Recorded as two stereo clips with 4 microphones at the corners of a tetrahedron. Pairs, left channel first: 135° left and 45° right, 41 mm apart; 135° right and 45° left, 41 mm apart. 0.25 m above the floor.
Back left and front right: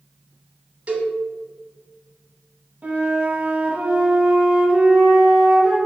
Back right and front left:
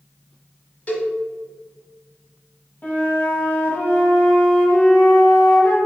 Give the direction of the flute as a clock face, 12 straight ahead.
3 o'clock.